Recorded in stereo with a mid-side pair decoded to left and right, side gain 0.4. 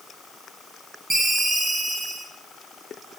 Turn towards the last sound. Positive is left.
turn(degrees=-25)